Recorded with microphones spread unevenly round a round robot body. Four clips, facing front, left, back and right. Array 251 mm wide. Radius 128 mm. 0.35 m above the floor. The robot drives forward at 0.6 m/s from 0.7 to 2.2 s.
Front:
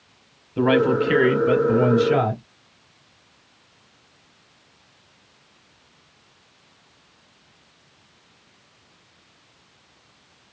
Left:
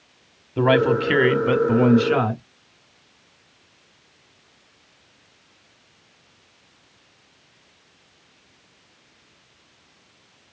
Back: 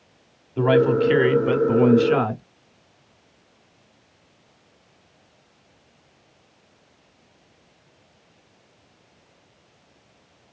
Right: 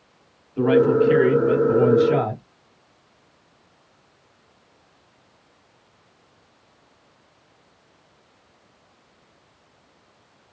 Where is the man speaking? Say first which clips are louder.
Right 2 dB, back 1 dB; 90° left, 1.3 m; by 2.4 s 145° left, 1.6 m.